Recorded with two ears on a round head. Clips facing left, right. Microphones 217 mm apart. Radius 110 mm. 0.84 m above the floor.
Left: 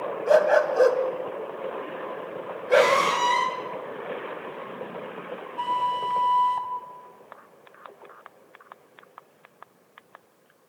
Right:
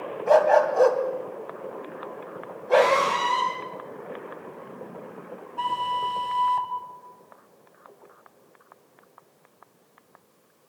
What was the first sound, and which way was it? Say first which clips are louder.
A dog barking: right 1 dB; 20° left (ahead or behind).